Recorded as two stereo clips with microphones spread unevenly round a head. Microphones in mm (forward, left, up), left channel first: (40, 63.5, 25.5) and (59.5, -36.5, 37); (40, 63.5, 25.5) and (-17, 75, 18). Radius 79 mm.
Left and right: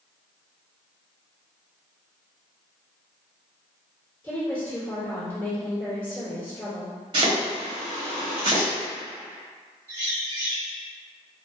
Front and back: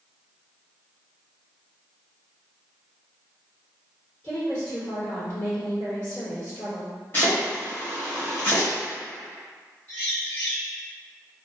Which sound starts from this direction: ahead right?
Chopping, at 7.1 s.